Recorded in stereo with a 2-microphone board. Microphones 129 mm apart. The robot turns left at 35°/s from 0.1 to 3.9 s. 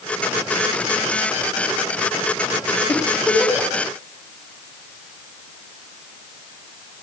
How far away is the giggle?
About 3.5 m.